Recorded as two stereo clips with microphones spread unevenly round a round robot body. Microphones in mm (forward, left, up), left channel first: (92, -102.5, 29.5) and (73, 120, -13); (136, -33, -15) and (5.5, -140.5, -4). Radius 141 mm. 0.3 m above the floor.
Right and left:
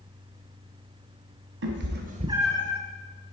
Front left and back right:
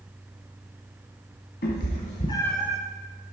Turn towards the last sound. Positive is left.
turn(degrees=-90)